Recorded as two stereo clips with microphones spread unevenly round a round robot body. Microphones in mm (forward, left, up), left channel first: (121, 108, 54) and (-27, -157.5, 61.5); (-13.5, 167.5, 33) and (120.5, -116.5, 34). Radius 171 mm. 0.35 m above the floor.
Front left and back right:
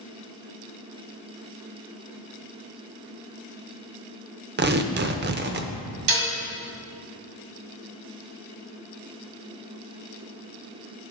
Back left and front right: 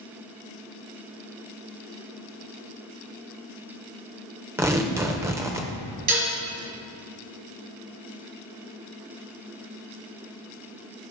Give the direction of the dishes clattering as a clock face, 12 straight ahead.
4 o'clock.